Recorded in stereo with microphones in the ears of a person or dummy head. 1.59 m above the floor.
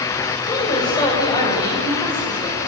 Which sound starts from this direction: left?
A woman speaking, at 0.5 s.